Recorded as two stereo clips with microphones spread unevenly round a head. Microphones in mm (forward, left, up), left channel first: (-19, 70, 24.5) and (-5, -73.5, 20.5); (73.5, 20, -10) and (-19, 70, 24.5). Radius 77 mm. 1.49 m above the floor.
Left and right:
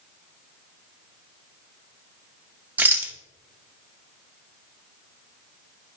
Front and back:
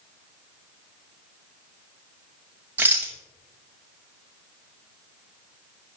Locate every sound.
2.8 s a rattle: 160° right, 0.9 m